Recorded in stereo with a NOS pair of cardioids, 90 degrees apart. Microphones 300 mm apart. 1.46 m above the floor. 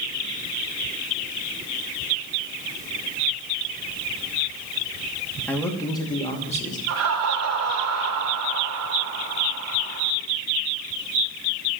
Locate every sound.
5.5 s a man speaking: 5° left, 2.5 m; by 6.8 s 25° left, 2.5 m
6.9 s laughter: 60° right, 3 m